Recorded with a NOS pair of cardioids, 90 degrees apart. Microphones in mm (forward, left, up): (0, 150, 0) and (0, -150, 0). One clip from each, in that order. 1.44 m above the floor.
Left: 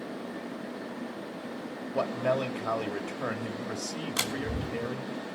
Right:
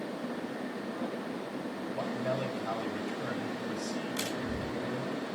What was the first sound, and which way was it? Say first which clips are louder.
A man speaking: left 7 dB; 50° left.